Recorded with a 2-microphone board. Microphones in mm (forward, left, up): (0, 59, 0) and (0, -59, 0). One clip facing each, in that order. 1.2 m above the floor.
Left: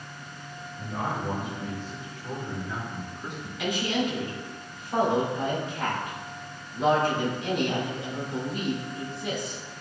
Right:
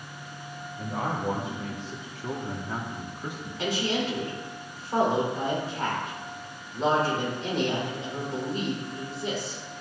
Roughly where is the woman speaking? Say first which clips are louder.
Even; right.